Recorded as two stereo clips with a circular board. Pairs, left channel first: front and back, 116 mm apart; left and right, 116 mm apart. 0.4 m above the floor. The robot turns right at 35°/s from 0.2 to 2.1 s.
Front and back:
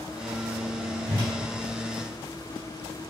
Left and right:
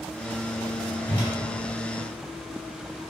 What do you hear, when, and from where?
1.1 s a whoosh: 140° left, 1.4 m; by 1.3 s 150° left, 1.4 m